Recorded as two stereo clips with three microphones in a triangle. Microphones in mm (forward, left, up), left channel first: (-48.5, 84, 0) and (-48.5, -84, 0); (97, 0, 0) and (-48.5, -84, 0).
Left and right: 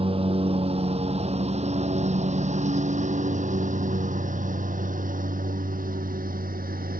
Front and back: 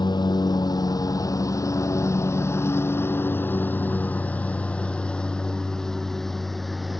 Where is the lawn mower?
35° right; by 7.0 s 60° right.